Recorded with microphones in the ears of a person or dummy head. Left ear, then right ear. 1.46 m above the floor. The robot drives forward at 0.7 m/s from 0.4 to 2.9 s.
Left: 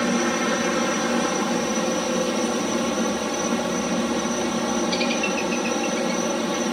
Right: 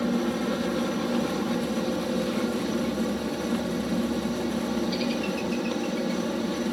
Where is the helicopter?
50° left (ahead or behind); by 6.7 s 40° left (ahead or behind).